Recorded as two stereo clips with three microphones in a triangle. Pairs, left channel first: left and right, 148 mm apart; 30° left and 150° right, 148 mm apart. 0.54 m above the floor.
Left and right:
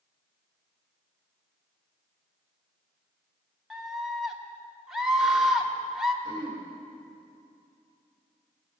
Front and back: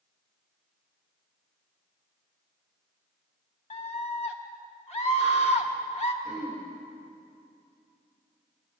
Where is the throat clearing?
145° left, 3.5 m.